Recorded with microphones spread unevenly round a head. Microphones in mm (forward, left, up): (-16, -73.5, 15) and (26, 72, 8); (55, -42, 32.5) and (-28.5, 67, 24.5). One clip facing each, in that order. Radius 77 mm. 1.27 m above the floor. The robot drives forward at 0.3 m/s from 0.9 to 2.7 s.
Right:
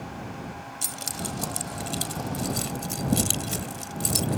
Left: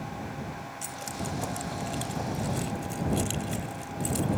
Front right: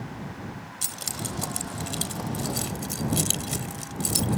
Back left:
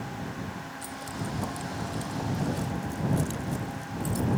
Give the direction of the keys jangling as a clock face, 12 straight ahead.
2 o'clock.